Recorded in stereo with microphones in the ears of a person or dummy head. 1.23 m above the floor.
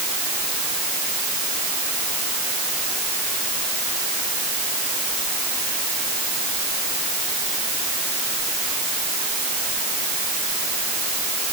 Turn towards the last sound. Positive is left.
No sound to turn to.